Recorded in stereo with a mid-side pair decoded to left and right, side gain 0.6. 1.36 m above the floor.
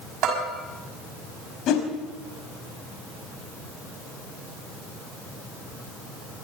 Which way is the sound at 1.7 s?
60° left.